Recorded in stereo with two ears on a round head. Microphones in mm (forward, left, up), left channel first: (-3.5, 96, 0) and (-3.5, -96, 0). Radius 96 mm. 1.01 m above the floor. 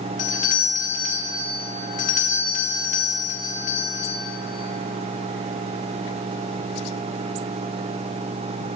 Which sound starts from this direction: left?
A doorbell, at 0.2 s.